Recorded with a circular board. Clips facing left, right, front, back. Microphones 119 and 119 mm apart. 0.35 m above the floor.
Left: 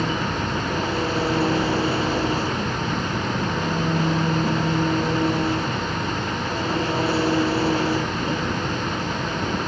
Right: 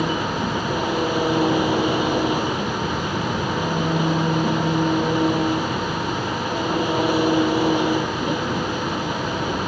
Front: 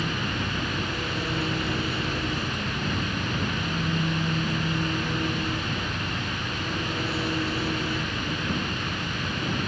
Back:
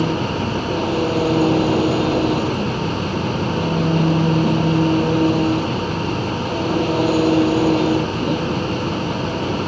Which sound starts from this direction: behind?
An engine running, at 0.0 s.